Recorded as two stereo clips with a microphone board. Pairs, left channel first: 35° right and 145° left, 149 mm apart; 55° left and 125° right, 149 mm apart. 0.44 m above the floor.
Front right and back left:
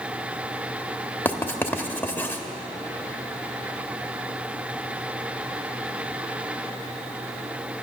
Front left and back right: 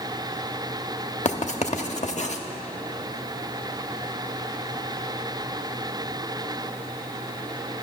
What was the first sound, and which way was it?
Writing, 40° left.